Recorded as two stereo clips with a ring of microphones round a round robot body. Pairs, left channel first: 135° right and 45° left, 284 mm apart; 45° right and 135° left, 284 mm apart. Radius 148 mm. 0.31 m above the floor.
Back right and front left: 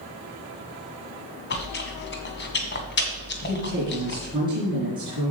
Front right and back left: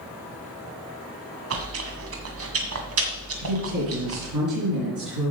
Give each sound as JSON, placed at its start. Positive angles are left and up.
{"t": 1.5, "sound": "chewing", "azimuth_deg": 175, "distance_m": 1.8}
{"t": 3.4, "sound": "a woman speaking", "azimuth_deg": 120, "distance_m": 4.5}